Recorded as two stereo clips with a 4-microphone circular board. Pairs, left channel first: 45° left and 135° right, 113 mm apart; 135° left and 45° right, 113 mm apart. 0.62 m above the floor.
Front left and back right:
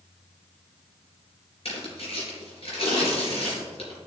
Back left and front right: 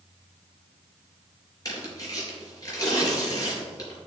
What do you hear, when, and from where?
1.6 s tearing paper: 80° left, 3.5 m